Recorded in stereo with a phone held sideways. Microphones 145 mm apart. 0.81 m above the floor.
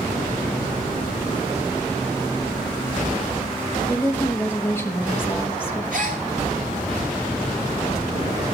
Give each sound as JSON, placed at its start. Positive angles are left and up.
{"t": 3.9, "sound": "a woman speaking", "side_deg": 15, "distance_m": 0.9}
{"t": 5.9, "sound": "a gasp", "side_deg": -60, "distance_m": 1.8}